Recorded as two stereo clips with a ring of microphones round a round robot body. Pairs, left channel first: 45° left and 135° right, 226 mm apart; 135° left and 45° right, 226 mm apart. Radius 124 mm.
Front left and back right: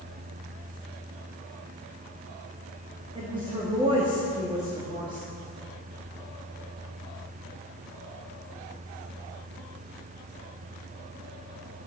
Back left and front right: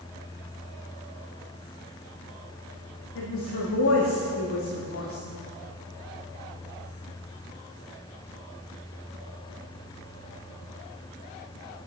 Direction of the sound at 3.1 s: 155° left.